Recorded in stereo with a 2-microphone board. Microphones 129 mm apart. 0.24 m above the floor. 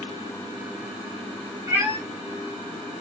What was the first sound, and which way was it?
A cat meowing, 25° right (ahead or behind).